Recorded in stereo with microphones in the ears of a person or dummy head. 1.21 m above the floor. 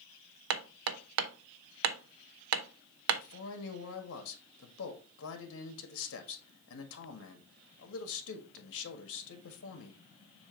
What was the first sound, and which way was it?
Hammering, 75° right (ahead or behind).